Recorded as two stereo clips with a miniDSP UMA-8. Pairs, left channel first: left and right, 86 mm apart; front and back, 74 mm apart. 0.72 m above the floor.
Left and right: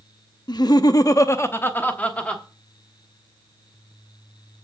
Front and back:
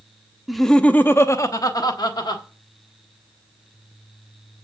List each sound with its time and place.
0.5 s laughter: 95° left, 0.7 m; by 2.4 s 10° left, 1.4 m